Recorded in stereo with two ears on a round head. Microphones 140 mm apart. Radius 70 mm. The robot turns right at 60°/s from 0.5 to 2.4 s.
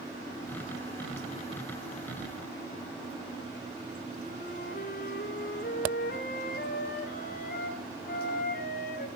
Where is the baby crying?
No baby crying in this recording.